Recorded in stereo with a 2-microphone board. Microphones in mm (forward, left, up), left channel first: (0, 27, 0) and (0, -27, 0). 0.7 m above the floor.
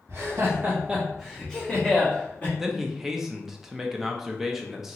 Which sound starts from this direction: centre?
A man speaking, at 2.6 s.